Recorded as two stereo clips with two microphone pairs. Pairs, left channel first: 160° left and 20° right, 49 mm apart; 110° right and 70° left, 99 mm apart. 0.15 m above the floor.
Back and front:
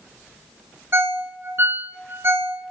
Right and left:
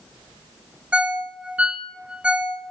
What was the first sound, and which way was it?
A ringtone, 5° right.